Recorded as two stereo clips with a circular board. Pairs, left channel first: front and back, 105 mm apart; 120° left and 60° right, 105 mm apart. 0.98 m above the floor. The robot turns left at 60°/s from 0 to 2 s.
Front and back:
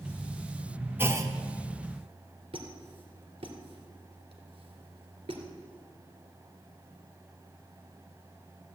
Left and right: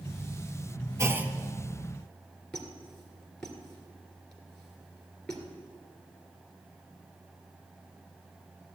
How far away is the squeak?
About 2.5 m.